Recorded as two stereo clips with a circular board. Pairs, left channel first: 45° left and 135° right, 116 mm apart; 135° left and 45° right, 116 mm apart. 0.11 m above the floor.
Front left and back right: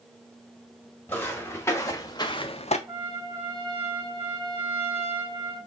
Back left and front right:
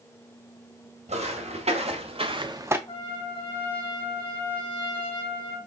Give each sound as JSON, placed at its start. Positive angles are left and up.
{"t": 1.1, "sound": "footsteps", "azimuth_deg": -30, "distance_m": 1.4}
{"t": 2.9, "sound": "a trumpet", "azimuth_deg": -175, "distance_m": 3.0}